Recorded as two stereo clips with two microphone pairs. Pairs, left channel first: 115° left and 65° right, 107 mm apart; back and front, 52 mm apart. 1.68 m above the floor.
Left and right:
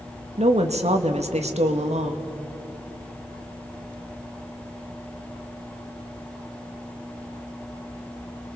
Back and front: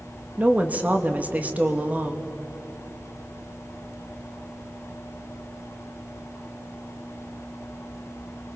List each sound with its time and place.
0.4 s a woman speaking: 60° right, 2 m